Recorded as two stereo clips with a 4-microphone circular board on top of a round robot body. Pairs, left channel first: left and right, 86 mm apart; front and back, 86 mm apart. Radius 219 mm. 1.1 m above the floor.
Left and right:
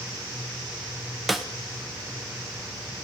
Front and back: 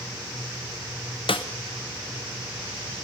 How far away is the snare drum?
About 1.8 m.